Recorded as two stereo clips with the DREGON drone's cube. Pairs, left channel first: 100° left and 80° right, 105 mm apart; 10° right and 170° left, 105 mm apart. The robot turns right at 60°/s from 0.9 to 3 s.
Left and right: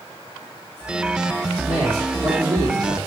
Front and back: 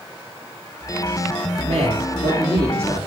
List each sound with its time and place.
1.6 s a man speaking: 165° left, 6 m; by 3.0 s 115° right, 6 m